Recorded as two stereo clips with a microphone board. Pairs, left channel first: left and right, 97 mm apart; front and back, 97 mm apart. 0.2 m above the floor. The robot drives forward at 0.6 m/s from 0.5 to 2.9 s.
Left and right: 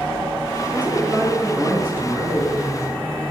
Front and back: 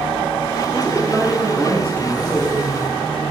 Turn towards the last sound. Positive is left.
turn(degrees=-95)